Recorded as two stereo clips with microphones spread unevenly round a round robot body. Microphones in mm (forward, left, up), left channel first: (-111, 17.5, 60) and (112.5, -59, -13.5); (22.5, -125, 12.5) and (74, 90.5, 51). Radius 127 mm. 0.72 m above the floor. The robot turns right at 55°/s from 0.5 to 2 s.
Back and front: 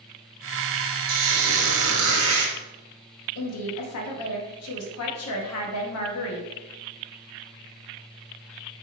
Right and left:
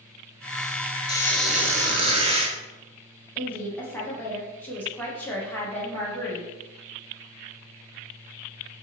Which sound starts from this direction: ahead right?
A squeak, at 1.1 s.